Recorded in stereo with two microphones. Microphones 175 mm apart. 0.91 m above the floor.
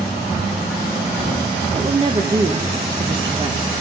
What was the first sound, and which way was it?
A woman speaking, 30° right (ahead or behind).